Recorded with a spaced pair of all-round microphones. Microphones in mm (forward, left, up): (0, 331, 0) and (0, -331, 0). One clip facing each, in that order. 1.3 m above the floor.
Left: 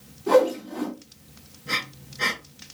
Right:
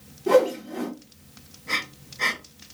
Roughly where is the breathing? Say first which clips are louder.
Left 1 dB; left.